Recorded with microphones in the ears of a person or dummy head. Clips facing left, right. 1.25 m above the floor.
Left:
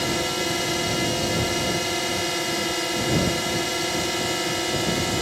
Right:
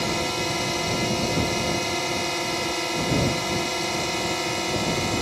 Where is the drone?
10° left (ahead or behind).